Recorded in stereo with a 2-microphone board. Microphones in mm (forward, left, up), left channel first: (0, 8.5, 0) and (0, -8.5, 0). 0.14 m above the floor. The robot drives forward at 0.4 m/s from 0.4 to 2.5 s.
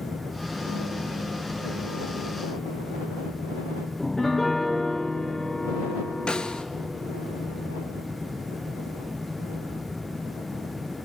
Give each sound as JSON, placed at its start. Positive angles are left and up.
{"t": 4.0, "sound": "a piano", "side_deg": 30, "distance_m": 4.5}
{"t": 6.3, "sound": "a snare drum", "side_deg": 60, "distance_m": 1.2}